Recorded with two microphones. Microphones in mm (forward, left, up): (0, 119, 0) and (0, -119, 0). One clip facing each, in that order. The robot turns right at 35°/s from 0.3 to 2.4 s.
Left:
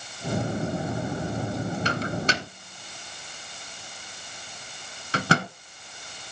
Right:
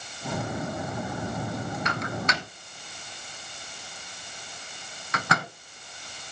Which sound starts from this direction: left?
A microwave, at 1.9 s.